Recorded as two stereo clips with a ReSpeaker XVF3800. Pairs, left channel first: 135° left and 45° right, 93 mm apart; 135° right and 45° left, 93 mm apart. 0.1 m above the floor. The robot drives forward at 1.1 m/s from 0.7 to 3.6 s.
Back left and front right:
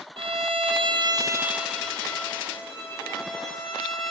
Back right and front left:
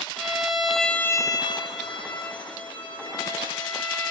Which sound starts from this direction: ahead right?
A violin, at 0.2 s.